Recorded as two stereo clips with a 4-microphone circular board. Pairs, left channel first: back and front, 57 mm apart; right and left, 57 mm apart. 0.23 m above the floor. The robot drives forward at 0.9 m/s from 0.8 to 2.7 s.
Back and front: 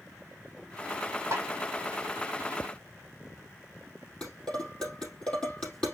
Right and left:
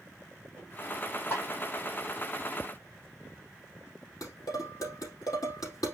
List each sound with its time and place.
1.3 s a snare drum: 50° right, 5 m
4.2 s dishes clattering: 105° right, 4.5 m